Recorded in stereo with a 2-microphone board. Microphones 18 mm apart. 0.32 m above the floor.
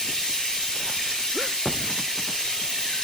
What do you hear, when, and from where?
0.0 s running water: 55° left (ahead or behind), 3 m